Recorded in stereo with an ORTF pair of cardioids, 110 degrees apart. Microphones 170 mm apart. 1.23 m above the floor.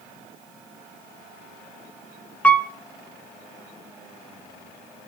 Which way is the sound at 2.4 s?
10° left.